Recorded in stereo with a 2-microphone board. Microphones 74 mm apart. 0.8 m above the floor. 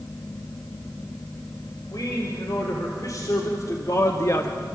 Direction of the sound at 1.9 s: 55° left (ahead or behind).